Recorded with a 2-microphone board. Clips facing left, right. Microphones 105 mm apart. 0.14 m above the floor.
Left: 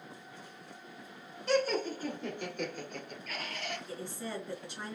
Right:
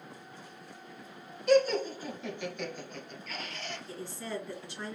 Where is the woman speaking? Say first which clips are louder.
Right 1 dB; 20° left (ahead or behind), 2 m.